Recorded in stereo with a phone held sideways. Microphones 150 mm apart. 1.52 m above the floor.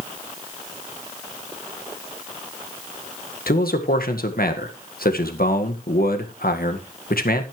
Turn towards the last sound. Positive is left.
turn(degrees=80)